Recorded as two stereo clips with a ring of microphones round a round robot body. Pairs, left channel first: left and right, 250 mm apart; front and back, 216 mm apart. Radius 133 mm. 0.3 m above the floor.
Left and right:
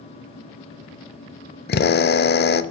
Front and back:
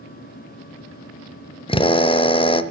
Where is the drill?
60° left, 0.7 m.